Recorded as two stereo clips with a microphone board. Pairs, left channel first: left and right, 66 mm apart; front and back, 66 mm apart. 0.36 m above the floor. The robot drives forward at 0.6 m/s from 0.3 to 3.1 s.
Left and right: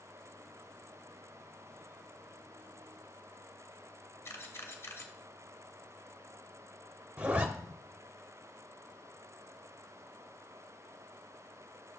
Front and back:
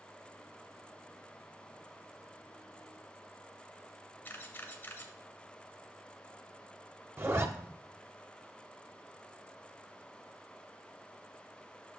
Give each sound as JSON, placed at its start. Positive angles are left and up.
{"t": 4.2, "sound": "a camera shutter", "azimuth_deg": 50, "distance_m": 1.0}
{"t": 7.2, "sound": "a zipper", "azimuth_deg": -150, "distance_m": 0.7}